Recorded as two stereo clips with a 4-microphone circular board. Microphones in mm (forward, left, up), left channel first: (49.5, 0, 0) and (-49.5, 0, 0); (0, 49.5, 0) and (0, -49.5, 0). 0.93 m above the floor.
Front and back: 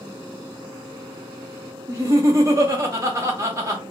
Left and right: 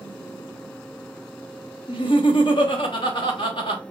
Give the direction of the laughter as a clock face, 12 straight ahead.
8 o'clock.